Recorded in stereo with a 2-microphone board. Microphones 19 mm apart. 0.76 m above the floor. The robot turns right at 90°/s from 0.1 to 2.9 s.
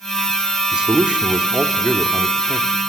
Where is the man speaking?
120° right, 1.5 m; by 2.8 s 70° left, 1.5 m.